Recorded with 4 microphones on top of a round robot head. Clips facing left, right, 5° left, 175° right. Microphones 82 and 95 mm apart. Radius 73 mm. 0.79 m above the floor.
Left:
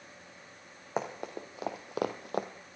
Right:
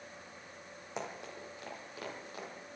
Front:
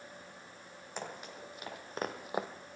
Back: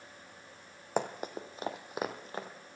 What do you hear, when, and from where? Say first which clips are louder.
1.0 s running footsteps: left 7 dB, back 10 dB; 155° left, 1.6 m; by 2.5 s 70° left, 1.1 m